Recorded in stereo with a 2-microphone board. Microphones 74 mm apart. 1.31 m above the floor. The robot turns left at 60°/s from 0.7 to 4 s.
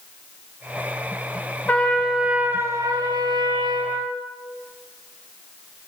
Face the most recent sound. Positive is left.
turn(degrees=-120)